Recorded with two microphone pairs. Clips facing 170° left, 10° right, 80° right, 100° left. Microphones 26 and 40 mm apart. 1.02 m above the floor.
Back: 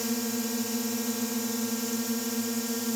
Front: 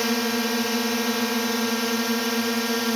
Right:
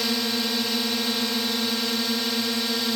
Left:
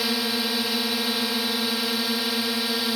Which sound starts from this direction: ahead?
A drone, at 0.0 s.